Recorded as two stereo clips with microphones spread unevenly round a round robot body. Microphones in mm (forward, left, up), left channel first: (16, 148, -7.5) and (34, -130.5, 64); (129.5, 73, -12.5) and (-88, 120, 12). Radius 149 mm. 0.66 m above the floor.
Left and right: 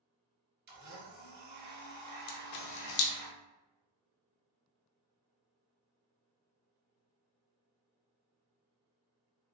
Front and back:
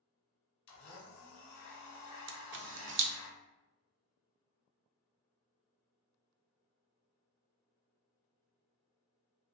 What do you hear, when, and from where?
0.7 s a blender: 30° right, 1.0 m
2.3 s a camera shutter: 130° left, 0.5 m